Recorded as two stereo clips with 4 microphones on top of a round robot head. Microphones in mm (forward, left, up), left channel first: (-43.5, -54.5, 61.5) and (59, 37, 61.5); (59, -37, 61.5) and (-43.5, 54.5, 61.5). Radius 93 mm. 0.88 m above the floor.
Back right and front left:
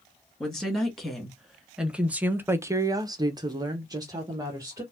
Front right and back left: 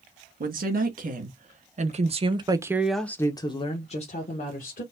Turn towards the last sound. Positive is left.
turn(degrees=-25)